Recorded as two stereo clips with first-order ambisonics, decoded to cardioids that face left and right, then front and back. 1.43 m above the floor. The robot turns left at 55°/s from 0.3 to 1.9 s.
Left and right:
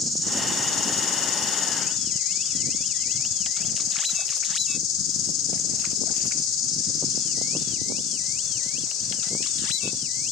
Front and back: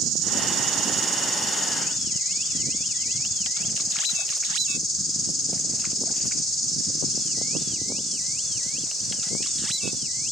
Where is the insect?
150° left, 2.5 m; by 10.3 s 60° left, 2.5 m.